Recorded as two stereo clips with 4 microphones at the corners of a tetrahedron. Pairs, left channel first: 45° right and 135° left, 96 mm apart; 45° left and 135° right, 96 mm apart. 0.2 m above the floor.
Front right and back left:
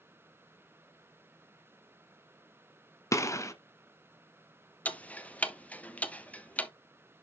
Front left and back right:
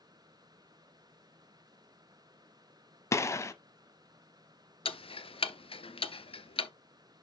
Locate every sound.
3.1 s a gunshot: straight ahead, 0.8 m
4.8 s ticking: 30° left, 0.7 m